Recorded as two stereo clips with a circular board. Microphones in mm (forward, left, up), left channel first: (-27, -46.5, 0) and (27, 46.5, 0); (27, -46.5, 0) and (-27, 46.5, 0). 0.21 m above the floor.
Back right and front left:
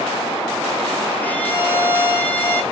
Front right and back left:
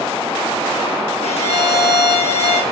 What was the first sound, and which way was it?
A violin, 45° right.